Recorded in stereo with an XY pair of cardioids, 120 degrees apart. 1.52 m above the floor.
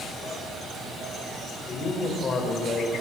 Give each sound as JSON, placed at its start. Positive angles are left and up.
{"t": 1.7, "sound": "a man speaking", "azimuth_deg": 45, "distance_m": 6.0}